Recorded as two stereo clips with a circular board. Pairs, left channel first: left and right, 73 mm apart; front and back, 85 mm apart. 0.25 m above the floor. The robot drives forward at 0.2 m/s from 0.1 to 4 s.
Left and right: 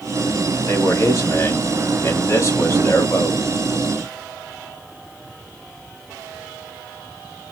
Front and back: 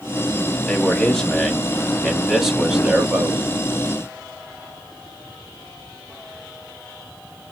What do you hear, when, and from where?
0.7 s a man speaking: 70° left, 1.2 m; by 3.4 s 110° left, 1.2 m